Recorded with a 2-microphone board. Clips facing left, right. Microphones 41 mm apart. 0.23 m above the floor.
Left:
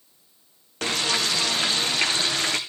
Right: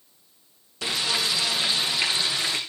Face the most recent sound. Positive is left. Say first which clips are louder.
# left 2 dB
turn(degrees=55)  # may be behind; listen again after turning